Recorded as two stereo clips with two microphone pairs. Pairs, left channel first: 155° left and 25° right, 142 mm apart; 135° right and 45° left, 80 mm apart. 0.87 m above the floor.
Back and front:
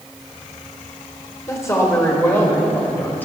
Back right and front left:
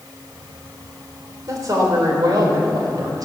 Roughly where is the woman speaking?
Left.